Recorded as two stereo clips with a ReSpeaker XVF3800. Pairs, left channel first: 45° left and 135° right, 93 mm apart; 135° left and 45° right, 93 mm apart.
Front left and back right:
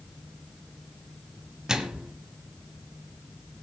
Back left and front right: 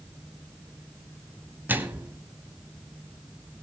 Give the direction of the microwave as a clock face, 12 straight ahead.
2 o'clock.